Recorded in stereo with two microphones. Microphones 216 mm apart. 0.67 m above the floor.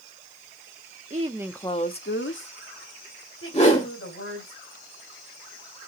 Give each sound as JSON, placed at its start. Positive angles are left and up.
{"t": 1.1, "sound": "a woman speaking", "side_deg": -35, "distance_m": 0.8}
{"t": 3.5, "sound": "a whoosh", "side_deg": 30, "distance_m": 2.5}